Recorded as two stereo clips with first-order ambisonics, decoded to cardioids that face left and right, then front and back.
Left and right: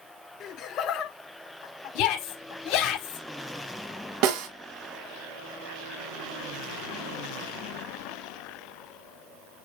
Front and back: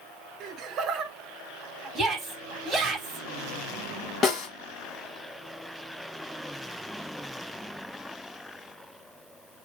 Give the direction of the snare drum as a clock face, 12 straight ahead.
2 o'clock.